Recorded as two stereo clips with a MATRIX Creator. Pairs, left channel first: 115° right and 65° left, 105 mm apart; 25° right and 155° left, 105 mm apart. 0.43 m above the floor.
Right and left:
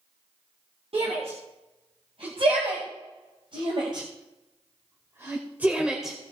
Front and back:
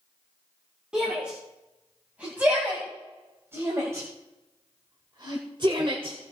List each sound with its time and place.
0.9 s a shout: 75° left, 3.5 m; by 6.2 s 155° left, 1.4 m